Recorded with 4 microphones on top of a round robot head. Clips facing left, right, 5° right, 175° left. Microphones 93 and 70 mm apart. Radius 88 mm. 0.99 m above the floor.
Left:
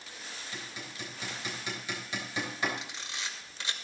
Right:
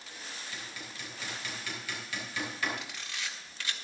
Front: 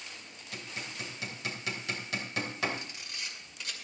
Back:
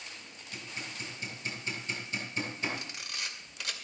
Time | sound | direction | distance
0.5 | hammering | 15° left | 3.5 m
2.8 | a camera shutter | 160° left | 2.5 m